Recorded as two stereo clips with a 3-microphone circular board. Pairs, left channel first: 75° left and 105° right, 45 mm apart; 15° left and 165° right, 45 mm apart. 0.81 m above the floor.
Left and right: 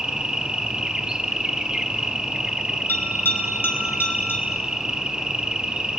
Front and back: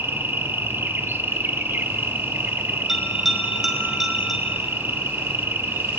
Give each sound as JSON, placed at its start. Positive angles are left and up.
{"t": 0.0, "sound": "an insect", "azimuth_deg": -175, "distance_m": 0.9}
{"t": 2.9, "sound": "a bell", "azimuth_deg": 110, "distance_m": 4.5}